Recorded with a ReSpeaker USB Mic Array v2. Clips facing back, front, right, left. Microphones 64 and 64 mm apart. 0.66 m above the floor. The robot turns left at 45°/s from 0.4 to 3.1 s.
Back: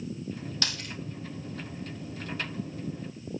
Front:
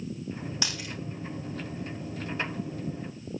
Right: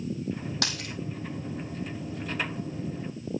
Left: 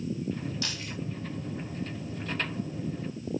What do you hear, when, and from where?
0.6 s a dropped coin: 75° right, 3 m; by 0.9 s 90° right, 3 m